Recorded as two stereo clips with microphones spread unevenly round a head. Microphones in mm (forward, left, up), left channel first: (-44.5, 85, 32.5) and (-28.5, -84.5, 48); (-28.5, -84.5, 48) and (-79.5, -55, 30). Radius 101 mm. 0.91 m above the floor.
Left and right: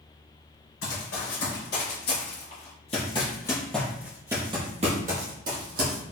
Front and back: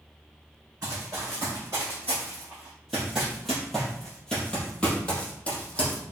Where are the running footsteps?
70° left, 1.9 m; by 6.0 s 80° right, 1.5 m.